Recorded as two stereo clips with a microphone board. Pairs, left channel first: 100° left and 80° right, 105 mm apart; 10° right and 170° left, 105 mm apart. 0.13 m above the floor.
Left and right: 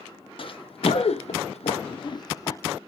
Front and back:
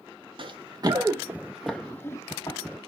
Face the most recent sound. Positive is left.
turn(degrees=35)